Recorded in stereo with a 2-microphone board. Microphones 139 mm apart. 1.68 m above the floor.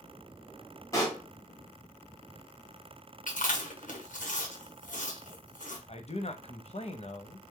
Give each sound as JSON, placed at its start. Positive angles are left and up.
{"t": 0.9, "sound": "a pop", "side_deg": 25, "distance_m": 1.7}
{"t": 3.3, "sound": "chewing", "side_deg": 65, "distance_m": 1.2}
{"t": 5.9, "sound": "a man speaking", "side_deg": 50, "distance_m": 0.7}